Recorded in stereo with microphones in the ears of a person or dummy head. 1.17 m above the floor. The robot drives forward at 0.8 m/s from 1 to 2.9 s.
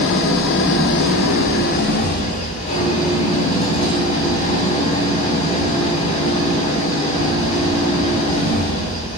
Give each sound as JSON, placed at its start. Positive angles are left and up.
{"t": 0.0, "sound": "an engine running", "side_deg": 55, "distance_m": 1.0}